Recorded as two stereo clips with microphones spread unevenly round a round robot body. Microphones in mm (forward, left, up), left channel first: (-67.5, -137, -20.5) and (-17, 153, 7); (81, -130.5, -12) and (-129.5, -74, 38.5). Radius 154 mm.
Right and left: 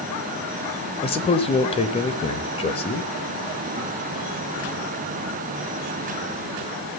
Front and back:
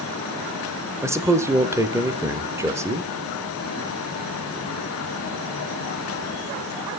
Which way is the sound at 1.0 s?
105° right.